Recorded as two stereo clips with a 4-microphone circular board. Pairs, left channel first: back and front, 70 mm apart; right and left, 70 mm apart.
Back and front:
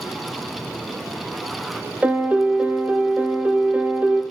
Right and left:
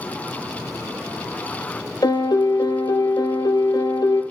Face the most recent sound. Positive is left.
turn(degrees=-70)